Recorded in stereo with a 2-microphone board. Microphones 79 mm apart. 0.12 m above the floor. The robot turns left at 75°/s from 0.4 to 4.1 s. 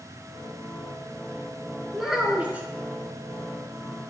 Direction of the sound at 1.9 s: Centre (ahead or behind).